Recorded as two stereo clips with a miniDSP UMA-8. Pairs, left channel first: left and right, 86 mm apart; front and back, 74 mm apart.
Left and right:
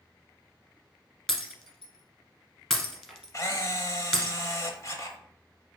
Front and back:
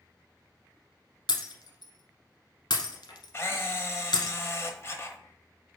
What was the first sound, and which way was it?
Breaking glass, 5° left.